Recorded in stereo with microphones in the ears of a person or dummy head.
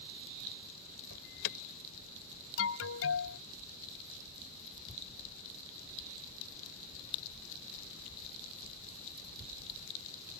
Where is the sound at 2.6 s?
80° left.